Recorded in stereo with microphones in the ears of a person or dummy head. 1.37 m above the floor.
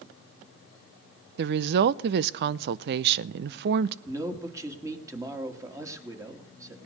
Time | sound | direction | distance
1.4 | a woman speaking | 60° right (ahead or behind) | 0.5 m
4.0 | a man speaking | 20° right (ahead or behind) | 2 m